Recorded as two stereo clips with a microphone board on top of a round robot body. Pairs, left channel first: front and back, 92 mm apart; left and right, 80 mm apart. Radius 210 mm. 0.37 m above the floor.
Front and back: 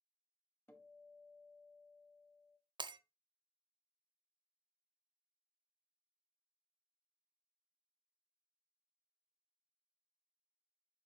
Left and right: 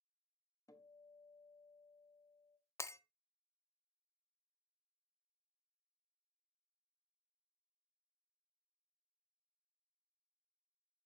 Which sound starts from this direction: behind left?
Breaking glass, at 2.8 s.